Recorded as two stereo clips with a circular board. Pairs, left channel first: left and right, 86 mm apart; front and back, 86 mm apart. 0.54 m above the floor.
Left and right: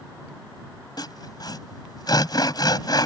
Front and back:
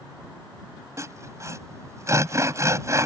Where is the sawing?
125° left.